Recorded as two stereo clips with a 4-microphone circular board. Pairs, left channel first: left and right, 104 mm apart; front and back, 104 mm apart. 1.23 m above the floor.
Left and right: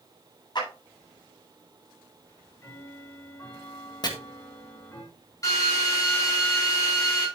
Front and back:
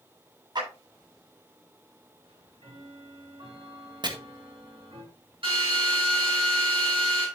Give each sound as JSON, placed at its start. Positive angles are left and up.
{"t": 0.6, "sound": "a clap", "azimuth_deg": 135, "distance_m": 8.0}
{"t": 2.2, "sound": "ticking", "azimuth_deg": 155, "distance_m": 4.5}
{"t": 4.0, "sound": "chopping", "azimuth_deg": 135, "distance_m": 1.7}
{"t": 5.4, "sound": "a drill", "azimuth_deg": 145, "distance_m": 7.0}